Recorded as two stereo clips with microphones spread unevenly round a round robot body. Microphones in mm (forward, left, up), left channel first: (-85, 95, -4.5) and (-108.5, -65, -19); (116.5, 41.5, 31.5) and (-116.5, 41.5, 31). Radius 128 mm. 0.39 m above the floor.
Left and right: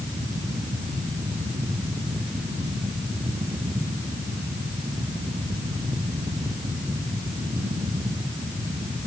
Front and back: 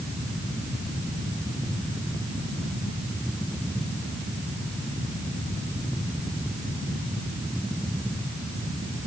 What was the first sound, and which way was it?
Only background noise.